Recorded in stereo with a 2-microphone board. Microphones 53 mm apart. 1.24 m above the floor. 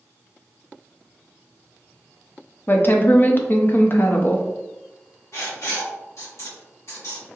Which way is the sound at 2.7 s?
40° left (ahead or behind).